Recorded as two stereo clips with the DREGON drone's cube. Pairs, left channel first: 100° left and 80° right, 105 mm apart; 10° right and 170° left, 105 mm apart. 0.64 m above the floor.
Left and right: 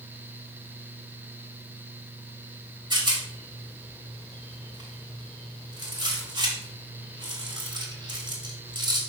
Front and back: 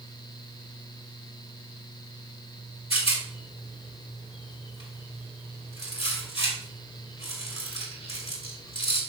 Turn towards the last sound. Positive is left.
turn(degrees=-35)